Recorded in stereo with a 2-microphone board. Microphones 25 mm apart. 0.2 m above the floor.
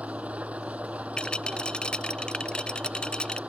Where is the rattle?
45° left (ahead or behind).